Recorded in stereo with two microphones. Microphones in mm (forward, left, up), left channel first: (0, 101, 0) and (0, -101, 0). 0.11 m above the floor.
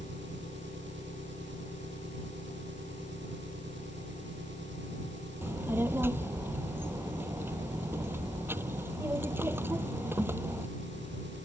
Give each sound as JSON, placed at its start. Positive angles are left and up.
{"t": 0.0, "sound": "an engine running", "side_deg": -65}
{"t": 5.4, "sound": "a child speaking", "side_deg": -10}